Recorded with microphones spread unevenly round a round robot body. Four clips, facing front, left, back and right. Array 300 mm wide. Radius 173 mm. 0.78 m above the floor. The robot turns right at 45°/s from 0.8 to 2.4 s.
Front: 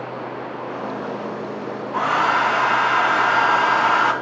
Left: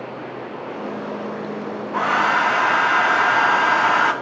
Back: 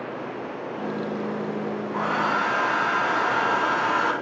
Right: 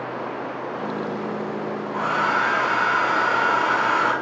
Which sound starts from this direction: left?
A hair dryer, at 1.9 s.